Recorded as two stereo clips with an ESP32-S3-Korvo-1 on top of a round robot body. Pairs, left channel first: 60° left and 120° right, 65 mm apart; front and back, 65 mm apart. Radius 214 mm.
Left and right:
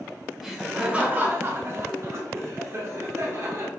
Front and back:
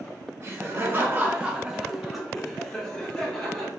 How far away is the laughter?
About 0.8 m.